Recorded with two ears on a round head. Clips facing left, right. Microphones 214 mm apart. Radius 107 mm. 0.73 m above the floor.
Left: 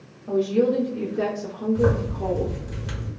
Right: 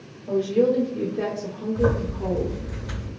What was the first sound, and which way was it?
A woman speaking, 10° left (ahead or behind).